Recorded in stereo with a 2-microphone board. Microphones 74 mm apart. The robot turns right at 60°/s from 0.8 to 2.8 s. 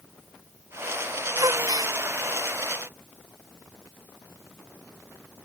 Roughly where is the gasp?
Behind right.